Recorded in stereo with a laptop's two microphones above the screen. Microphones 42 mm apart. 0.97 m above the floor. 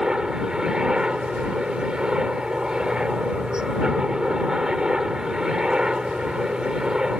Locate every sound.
0.0 s a helicopter: 15° right (ahead or behind)